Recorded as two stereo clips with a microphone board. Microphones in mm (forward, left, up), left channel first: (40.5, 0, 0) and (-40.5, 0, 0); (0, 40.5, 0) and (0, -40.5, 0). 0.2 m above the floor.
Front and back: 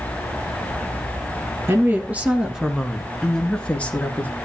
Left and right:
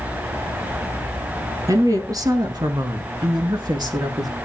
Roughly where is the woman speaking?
Behind right.